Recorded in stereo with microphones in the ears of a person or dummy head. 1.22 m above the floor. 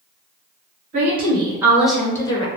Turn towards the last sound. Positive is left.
turn(degrees=30)  # may be behind; listen again after turning